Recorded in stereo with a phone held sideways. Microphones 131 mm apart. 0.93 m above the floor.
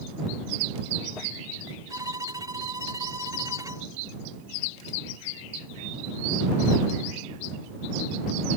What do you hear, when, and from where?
1.9 s a violin: 30° right (ahead or behind)